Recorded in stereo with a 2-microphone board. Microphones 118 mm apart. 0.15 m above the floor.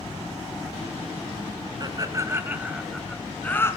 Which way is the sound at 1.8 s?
35° right (ahead or behind).